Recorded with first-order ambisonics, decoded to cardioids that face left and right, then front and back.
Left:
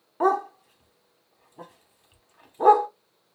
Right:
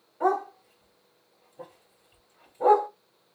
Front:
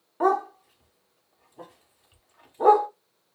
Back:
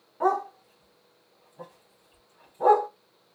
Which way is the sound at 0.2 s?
65° left.